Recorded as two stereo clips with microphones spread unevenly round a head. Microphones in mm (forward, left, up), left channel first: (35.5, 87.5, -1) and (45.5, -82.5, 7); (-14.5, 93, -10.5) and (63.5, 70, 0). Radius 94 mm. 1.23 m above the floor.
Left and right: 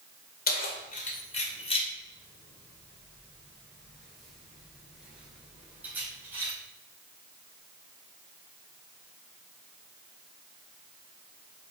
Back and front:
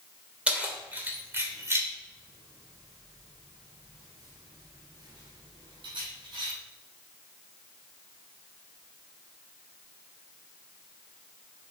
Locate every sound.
0.5 s keys jangling: 60° left, 3 m; by 6.5 s 10° right, 5 m